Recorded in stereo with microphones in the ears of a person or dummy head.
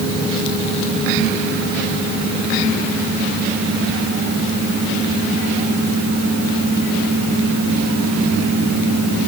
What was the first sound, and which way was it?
Only background noise.